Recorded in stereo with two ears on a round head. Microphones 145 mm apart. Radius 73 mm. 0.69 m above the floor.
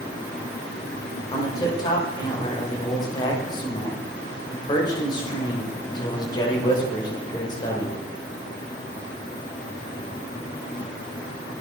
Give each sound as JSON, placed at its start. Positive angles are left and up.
{"t": 1.3, "sound": "a man speaking", "side_deg": 25, "distance_m": 2.5}